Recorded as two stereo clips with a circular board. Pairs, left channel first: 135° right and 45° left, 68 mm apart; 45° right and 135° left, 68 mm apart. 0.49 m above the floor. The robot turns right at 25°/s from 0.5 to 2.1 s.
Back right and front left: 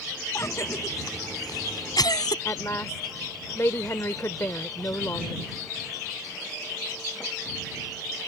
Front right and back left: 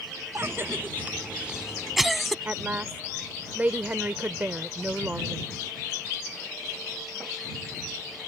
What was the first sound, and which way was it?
A cough, 175° right.